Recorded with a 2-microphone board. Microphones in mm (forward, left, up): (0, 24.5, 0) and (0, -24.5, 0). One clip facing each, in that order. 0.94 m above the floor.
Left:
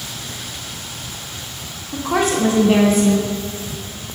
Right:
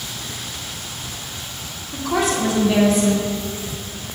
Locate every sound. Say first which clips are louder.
1.9 s a woman speaking: left 2 dB; 35° left (ahead or behind), 1.8 m